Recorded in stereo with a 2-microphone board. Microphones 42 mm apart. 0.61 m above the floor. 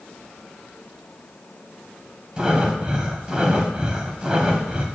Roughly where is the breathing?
Right.